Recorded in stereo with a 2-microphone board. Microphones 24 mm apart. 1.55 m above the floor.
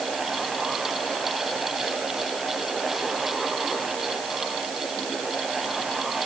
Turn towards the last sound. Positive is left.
No sound to turn to.